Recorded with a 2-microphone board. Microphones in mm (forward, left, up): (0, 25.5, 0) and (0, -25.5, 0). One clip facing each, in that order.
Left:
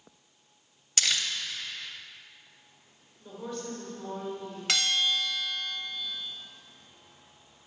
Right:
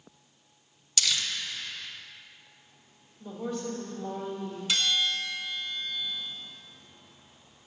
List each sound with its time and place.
1.0 s crumpling: 40° left (ahead or behind), 0.8 m
3.2 s a woman speaking: 10° right (ahead or behind), 1.6 m
4.7 s a bell: 75° left (ahead or behind), 1.3 m